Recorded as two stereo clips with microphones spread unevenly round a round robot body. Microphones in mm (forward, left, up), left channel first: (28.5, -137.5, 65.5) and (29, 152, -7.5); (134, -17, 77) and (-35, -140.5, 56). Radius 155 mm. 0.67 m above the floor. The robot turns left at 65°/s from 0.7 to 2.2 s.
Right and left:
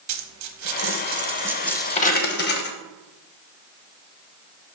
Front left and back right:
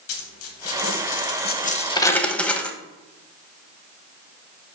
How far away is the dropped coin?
About 0.9 m.